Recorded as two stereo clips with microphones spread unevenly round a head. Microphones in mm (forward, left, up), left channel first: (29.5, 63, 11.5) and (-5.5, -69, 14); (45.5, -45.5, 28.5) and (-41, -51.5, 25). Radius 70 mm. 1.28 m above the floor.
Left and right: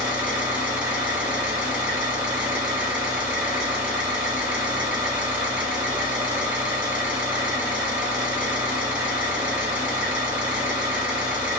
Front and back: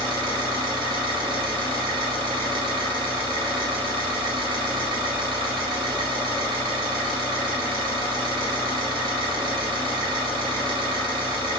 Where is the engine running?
175° right, 1.4 m.